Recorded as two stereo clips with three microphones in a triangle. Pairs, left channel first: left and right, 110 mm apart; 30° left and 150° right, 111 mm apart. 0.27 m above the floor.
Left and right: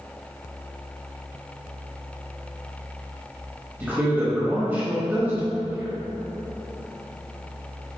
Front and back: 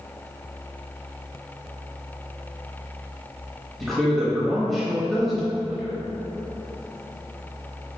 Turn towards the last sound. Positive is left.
turn(degrees=-55)